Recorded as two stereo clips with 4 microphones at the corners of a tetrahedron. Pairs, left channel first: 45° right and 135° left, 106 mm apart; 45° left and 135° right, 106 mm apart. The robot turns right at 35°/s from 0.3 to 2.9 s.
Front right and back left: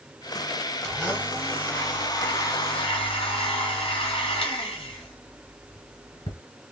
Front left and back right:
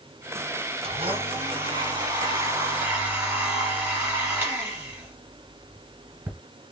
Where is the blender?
135° right, 1.8 m; by 6.4 s 60° right, 1.8 m.